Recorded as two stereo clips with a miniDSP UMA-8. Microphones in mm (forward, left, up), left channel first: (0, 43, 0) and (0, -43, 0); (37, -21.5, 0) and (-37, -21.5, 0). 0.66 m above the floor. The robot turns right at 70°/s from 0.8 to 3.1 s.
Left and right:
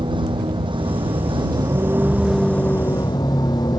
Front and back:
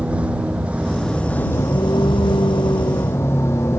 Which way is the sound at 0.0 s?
110° right.